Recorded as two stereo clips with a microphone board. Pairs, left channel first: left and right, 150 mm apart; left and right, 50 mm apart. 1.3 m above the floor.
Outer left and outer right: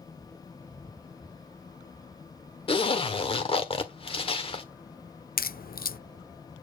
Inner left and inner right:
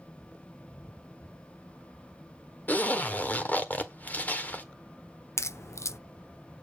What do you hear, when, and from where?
2.7 s a zipper: 35° left (ahead or behind), 1.5 m
5.4 s a crack: 75° left (ahead or behind), 0.6 m